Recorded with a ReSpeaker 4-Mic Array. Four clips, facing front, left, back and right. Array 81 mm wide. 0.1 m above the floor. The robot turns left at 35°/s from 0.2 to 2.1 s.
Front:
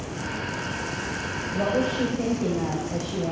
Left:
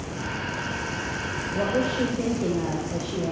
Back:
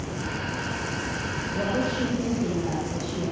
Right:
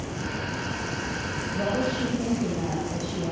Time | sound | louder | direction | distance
1.5 | a woman speaking | left 2 dB, front 3 dB | 90° left | 5.5 m